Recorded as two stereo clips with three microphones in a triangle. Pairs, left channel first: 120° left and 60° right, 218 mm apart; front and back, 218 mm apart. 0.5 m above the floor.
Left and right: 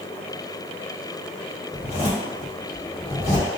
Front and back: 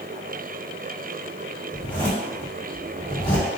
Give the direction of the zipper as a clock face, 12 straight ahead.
9 o'clock.